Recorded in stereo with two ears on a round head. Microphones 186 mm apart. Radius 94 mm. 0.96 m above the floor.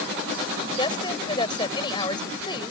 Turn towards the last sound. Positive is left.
turn(degrees=20)  # may be behind; listen again after turning